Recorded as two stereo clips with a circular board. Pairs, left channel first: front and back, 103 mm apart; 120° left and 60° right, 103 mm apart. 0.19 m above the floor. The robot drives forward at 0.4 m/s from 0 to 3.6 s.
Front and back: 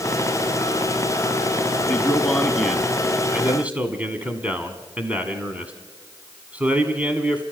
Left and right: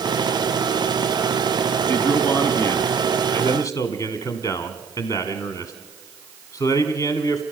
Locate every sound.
1.9 s a man speaking: 70° left, 1.6 m; by 7.4 s 110° left, 1.6 m